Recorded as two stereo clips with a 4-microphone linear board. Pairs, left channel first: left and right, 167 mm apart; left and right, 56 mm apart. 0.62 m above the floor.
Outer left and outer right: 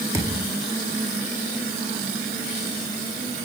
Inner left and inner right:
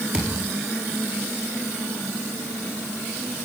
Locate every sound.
0.1 s a thud: 20° right (ahead or behind), 4 m